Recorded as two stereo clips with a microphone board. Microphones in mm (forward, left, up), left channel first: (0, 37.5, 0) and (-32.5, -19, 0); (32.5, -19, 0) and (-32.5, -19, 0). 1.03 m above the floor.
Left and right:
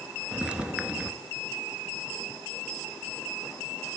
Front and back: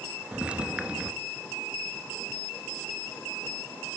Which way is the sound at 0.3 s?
155° right.